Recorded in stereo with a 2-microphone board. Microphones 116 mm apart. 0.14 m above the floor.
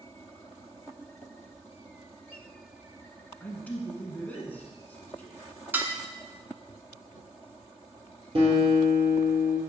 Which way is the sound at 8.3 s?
55° right (ahead or behind).